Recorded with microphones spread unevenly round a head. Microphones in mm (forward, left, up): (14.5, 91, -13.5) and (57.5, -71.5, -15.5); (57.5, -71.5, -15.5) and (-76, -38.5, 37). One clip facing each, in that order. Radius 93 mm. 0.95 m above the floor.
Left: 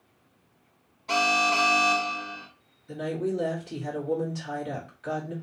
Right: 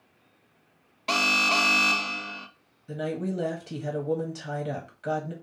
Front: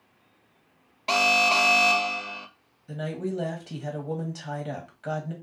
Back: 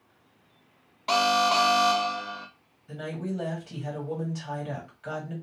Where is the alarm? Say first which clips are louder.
Left 3 dB, back 1 dB; 80° right, 0.5 m.